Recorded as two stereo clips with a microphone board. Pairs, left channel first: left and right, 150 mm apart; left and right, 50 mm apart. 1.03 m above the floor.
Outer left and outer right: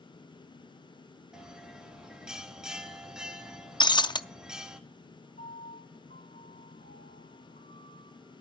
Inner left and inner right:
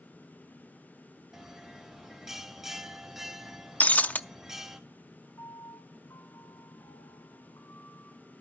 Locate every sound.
1.3 s a bell: 5° right (ahead or behind), 1.3 m
3.8 s breaking glass: 30° left (ahead or behind), 0.5 m
5.4 s a piano: 60° left (ahead or behind), 2.5 m